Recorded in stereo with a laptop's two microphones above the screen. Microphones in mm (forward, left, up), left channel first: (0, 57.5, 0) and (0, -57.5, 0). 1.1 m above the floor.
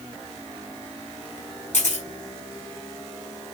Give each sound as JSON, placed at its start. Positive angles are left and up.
{"t": 1.7, "sound": "a camera shutter", "side_deg": 80, "distance_m": 4.5}